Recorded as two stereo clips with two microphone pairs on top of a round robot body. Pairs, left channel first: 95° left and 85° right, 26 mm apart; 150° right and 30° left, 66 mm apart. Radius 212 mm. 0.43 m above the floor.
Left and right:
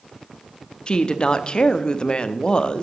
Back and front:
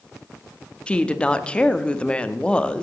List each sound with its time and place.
0.9 s a woman speaking: 130° left, 1.1 m